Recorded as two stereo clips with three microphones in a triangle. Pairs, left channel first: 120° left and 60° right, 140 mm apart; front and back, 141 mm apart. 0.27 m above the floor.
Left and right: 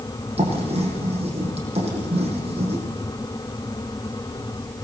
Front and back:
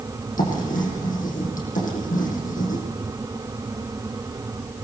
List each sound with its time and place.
0.4 s writing: 15° right, 8.5 m